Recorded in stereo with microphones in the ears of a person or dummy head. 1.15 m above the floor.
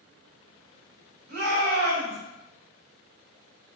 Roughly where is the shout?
Right.